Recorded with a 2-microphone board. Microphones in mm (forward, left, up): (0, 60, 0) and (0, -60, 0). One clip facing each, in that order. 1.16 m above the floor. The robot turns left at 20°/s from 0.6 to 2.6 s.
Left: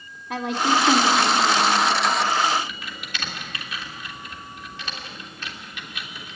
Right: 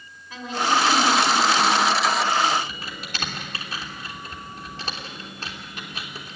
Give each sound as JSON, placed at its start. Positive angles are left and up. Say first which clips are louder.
{"t": 0.3, "sound": "a woman speaking", "louder": "left 2 dB", "azimuth_deg": 100, "distance_m": 3.0}
{"t": 2.5, "sound": "typing on a keyboard", "louder": "even", "side_deg": -40, "distance_m": 3.0}